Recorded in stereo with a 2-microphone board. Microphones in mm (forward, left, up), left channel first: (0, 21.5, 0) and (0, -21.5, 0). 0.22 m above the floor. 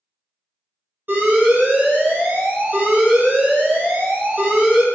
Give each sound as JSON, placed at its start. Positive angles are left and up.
{"t": 1.1, "sound": "an alarm", "side_deg": -45, "distance_m": 1.3}